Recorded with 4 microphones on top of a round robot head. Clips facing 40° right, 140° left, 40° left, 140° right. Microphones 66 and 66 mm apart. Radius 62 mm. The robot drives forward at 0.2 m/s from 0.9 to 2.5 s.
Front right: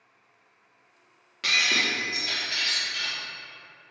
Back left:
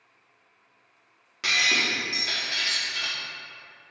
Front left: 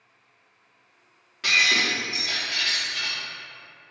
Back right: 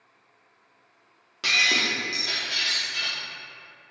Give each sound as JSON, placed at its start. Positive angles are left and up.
{"t": 1.4, "sound": "breaking glass", "azimuth_deg": -140, "distance_m": 0.6}